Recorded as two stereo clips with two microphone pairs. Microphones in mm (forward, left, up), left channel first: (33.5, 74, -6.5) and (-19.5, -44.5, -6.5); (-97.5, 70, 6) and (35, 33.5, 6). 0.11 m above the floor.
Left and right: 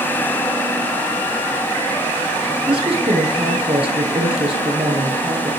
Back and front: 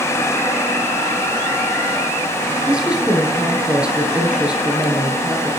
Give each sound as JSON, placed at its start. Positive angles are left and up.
{"t": 2.7, "sound": "a woman speaking", "azimuth_deg": -95, "distance_m": 2.5}